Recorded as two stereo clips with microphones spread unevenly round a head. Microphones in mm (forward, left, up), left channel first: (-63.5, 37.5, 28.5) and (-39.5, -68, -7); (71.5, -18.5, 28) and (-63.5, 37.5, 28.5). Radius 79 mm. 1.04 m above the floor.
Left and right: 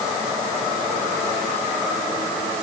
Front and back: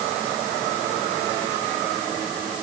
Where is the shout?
No shout in this recording.